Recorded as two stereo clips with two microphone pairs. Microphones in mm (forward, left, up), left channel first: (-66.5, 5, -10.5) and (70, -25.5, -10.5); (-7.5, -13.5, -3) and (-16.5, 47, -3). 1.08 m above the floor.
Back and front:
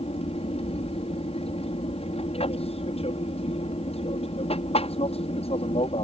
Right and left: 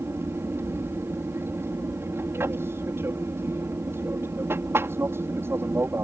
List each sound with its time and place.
0.0 s an aircraft: 135° left